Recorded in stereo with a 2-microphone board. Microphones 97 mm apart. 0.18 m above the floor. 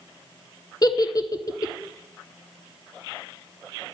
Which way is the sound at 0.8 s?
40° left (ahead or behind).